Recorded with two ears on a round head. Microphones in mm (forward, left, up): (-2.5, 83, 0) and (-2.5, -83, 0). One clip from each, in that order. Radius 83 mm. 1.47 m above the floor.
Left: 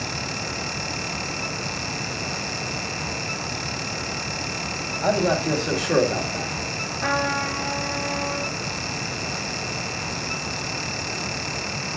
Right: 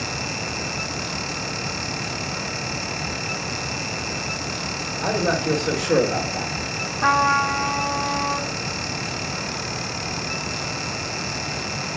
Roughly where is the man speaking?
Centre.